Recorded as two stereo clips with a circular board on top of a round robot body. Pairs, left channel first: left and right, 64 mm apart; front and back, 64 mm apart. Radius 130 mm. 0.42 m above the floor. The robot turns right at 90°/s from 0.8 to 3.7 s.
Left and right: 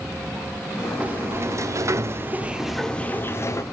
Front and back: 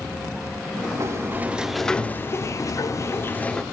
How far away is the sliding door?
About 1.5 m.